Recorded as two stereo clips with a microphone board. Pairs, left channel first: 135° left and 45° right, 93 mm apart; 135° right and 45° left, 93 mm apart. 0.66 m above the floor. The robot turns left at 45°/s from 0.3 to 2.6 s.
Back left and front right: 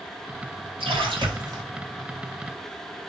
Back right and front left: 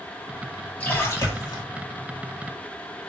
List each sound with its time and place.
0.8 s a splash: 60° right, 1.8 m; by 1.6 s 95° right, 1.8 m